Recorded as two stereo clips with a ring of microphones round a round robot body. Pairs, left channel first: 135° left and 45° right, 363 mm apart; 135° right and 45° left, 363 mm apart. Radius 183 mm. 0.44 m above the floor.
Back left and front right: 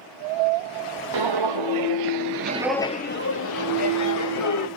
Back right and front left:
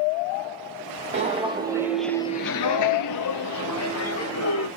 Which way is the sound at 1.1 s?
25° right.